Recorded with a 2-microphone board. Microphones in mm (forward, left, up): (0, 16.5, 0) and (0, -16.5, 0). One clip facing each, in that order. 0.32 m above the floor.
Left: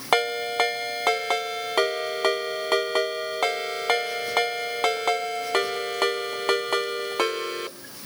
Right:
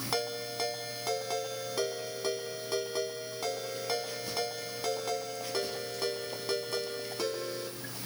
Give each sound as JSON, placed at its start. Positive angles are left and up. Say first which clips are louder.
{"t": 0.1, "sound": "a ringtone", "louder": "left 13 dB", "side_deg": 60, "distance_m": 1.2}